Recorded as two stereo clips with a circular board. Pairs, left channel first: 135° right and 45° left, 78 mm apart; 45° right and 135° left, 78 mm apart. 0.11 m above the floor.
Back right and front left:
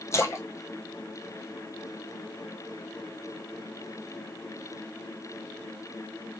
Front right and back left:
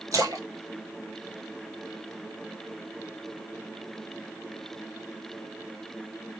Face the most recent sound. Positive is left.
turn(degrees=175)